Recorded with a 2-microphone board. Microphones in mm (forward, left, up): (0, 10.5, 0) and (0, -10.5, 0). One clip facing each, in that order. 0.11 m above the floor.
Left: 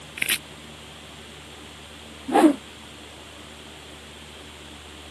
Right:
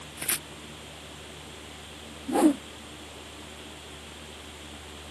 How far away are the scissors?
I don't hear scissors.